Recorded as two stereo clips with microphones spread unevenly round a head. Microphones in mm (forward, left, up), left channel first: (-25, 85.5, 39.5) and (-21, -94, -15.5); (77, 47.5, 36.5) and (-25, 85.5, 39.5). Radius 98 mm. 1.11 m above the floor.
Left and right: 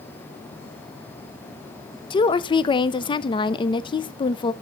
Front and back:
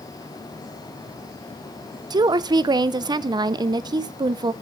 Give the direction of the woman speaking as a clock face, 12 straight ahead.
7 o'clock.